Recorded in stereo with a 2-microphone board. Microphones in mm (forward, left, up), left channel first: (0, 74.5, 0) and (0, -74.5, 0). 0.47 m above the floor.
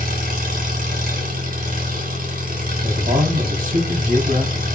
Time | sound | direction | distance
0.0 | an engine running | 75° right (ahead or behind) | 1.7 m
2.8 | a man speaking | 65° right (ahead or behind) | 2 m